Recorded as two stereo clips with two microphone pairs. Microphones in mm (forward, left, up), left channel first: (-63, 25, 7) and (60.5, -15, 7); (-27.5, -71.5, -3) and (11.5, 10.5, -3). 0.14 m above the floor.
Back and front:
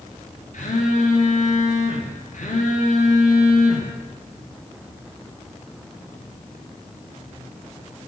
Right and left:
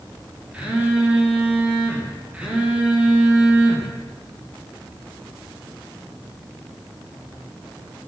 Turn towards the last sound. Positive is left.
turn(degrees=140)